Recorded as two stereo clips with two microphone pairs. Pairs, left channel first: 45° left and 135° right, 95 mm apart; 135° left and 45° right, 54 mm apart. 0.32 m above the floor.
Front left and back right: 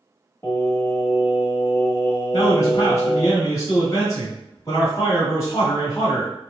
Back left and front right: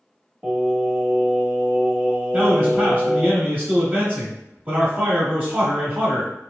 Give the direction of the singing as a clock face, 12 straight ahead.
12 o'clock.